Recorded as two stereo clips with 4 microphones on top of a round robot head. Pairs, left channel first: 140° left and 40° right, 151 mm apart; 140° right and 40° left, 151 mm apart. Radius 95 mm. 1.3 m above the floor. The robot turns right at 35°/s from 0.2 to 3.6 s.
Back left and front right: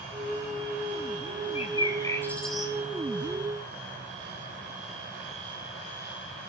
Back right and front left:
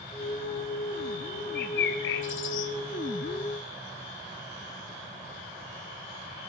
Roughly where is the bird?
Behind.